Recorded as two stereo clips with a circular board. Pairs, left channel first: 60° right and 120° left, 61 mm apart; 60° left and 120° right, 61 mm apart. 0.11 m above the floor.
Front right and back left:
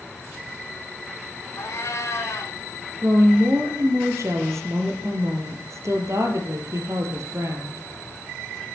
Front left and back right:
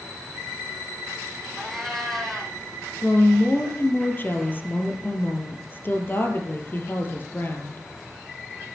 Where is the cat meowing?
25° right, 2.5 m.